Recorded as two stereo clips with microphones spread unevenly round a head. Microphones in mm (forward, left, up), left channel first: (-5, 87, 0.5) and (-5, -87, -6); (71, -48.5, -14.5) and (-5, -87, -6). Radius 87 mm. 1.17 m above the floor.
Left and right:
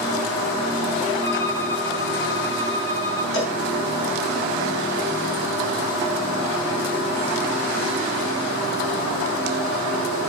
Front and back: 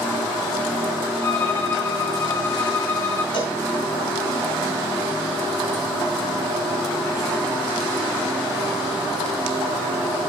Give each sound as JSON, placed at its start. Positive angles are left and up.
{"t": 1.2, "sound": "a violin", "azimuth_deg": 105, "distance_m": 5.5}
{"t": 3.3, "sound": "a cowbell", "azimuth_deg": 75, "distance_m": 10.0}